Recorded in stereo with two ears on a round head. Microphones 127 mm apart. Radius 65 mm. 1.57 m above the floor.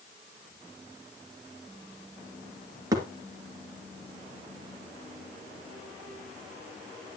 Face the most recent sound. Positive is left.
turn(degrees=-25)  # may be behind; listen again after turning